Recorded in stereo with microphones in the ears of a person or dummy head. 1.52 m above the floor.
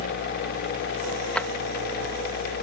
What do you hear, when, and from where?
1.4 s a drawer: 5° left (ahead or behind)